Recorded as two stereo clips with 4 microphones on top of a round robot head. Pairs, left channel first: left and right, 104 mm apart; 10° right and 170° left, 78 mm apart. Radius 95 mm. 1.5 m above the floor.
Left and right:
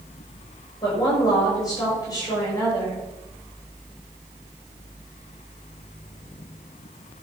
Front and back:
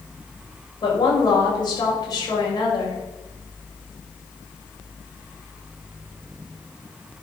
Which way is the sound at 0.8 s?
30° left.